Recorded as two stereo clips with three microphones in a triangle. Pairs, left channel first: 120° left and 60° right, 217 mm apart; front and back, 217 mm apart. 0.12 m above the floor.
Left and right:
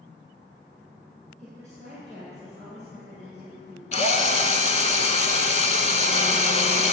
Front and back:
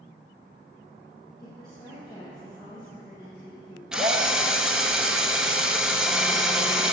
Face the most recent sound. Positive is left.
turn(degrees=95)